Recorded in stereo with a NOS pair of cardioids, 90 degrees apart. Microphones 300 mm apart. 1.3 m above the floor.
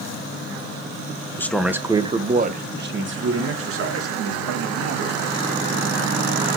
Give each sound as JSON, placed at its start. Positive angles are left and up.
{"t": 1.4, "sound": "a man speaking", "azimuth_deg": 10, "distance_m": 0.8}